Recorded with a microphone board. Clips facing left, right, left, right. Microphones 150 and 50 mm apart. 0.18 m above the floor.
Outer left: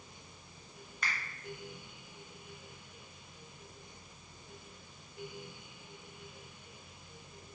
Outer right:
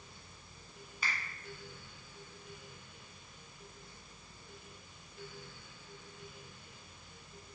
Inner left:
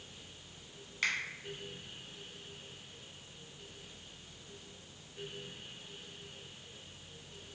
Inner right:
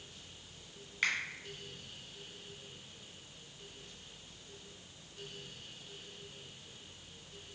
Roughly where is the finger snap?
Centre.